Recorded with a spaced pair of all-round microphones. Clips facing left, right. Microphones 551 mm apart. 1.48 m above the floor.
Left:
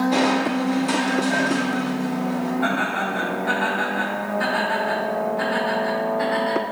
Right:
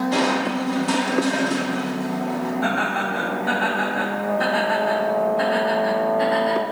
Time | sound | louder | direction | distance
0.1 | crushing | left 2 dB | 40° right (ahead or behind) | 1.2 m
2.6 | laughter | even | 55° right (ahead or behind) | 3 m